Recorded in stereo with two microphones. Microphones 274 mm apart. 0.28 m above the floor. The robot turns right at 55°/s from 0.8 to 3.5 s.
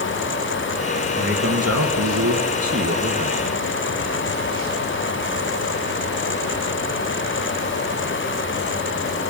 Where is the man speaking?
145° right, 4 m; by 3.6 s 15° right, 4 m.